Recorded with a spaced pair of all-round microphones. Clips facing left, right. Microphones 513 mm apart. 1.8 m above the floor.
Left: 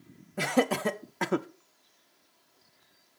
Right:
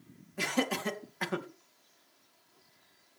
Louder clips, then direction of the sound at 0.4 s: Left 6 dB; 70° left (ahead or behind).